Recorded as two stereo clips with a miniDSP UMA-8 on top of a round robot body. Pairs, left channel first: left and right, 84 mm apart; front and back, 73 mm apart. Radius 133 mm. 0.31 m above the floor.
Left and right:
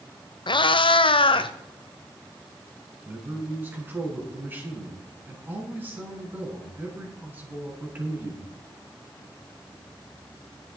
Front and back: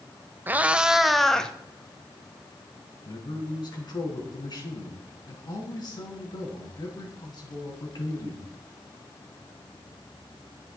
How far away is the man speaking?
About 4 m.